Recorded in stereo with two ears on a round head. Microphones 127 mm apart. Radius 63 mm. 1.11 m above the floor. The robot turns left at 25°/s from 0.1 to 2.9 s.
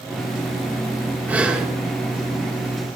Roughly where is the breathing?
Centre.